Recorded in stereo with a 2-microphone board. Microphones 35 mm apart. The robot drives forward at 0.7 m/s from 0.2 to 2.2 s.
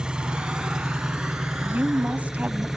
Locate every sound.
0.0 s an engine running: 25° right (ahead or behind), 1.1 m; by 2.8 s 10° right (ahead or behind), 2.5 m
1.6 s a woman speaking: 45° right (ahead or behind), 1.7 m